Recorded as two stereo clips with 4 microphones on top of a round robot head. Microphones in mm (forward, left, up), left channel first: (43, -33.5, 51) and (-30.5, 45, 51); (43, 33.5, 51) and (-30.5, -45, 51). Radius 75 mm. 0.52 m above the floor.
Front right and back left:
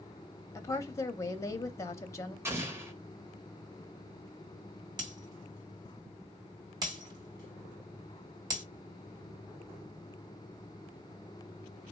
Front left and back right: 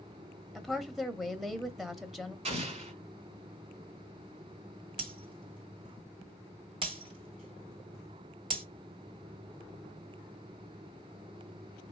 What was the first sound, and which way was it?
A woman speaking, 50° right.